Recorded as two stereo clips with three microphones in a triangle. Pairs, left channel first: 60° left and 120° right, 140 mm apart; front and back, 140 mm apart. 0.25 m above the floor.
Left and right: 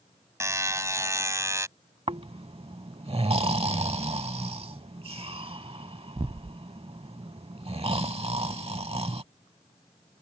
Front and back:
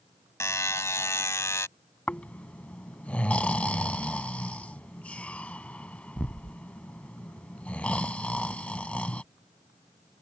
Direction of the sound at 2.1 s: 80° right.